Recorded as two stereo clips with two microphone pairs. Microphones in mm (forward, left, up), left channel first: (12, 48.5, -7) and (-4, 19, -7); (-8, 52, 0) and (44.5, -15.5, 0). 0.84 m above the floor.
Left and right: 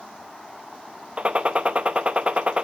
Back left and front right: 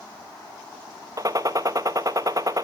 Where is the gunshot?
75° right, 0.8 m.